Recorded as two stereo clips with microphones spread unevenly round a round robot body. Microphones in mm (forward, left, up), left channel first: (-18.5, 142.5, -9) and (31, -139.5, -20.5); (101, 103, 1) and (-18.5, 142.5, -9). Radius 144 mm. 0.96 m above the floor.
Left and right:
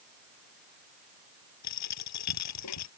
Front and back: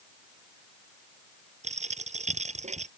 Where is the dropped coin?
135° left.